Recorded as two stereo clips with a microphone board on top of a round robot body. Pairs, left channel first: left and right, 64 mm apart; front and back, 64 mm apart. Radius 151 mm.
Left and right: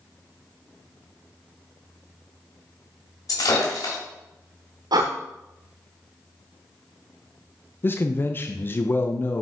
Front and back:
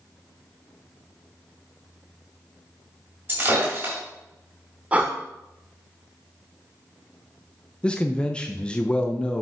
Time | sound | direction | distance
3.3 | breaking glass | 125° left | 4 m
4.9 | breathing | 110° right | 0.6 m
7.8 | a man speaking | 65° left | 0.8 m